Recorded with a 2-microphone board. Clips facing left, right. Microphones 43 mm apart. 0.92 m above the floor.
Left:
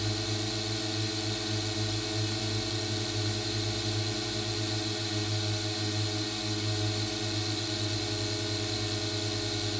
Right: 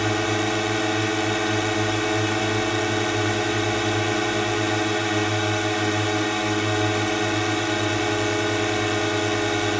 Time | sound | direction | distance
0.0 | a drone | 60° right (ahead or behind) | ?